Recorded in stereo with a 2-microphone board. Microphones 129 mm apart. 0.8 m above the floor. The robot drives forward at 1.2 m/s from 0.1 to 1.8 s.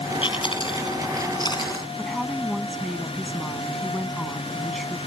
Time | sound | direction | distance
0.2 | chewing | 40° left (ahead or behind) | ?
2.0 | a woman speaking | centre (ahead or behind) | ?